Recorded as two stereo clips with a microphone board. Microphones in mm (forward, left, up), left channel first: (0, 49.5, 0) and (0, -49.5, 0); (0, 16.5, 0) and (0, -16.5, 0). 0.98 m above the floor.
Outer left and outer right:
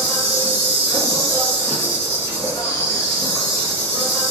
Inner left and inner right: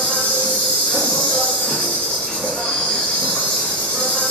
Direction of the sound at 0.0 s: 35° left (ahead or behind).